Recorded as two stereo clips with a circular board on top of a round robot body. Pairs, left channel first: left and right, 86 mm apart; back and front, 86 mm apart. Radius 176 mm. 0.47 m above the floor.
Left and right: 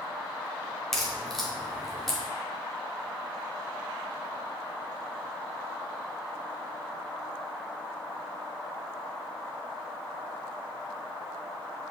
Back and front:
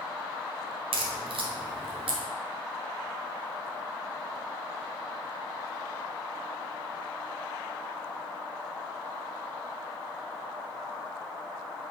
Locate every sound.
0.9 s a crack: 5° left, 1.2 m